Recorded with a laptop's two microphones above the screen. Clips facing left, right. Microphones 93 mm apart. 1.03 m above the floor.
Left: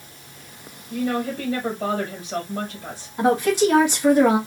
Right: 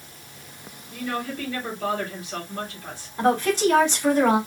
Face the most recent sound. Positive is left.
turn(degrees=10)  # may be behind; listen again after turning